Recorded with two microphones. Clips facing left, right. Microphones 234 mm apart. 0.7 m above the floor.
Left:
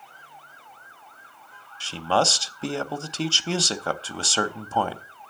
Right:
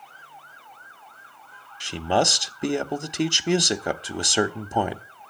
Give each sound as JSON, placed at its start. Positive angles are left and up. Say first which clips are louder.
{"t": 1.8, "sound": "a man speaking", "louder": "right 1 dB", "side_deg": -15, "distance_m": 0.6}